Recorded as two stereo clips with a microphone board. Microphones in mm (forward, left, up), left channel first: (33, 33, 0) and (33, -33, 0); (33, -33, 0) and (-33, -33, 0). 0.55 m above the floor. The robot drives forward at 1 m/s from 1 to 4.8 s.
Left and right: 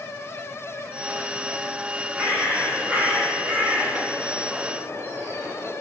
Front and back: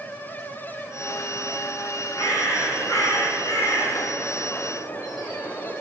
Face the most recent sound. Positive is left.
turn(degrees=-30)